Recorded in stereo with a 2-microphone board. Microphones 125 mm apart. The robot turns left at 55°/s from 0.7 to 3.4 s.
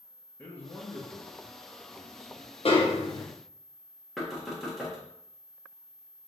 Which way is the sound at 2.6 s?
70° left.